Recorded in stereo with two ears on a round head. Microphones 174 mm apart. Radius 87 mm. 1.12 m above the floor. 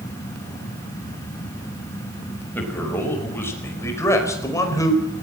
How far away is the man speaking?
About 5.5 m.